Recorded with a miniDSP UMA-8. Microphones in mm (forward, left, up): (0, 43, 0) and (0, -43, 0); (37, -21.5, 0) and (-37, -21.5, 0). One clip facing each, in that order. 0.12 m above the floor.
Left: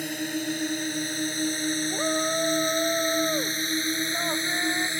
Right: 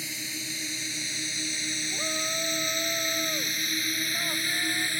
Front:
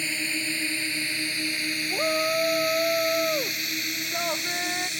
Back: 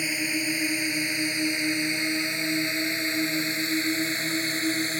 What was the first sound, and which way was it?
A drone, 105° left.